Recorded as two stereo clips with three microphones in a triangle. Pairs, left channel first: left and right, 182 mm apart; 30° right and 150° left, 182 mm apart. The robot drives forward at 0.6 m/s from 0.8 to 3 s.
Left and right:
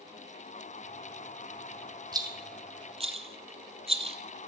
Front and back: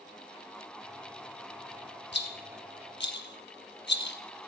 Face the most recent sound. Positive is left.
turn(degrees=-35)